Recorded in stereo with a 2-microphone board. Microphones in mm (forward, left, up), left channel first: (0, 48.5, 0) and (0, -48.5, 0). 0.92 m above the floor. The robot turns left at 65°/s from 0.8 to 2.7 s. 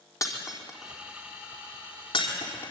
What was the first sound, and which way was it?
Breaking glass, 35° left (ahead or behind).